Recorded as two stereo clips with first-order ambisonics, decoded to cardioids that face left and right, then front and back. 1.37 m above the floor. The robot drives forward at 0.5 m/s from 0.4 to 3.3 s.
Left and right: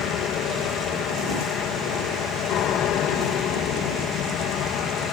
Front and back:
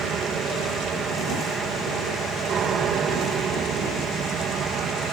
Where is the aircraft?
125° left; by 5.1 s 130° left.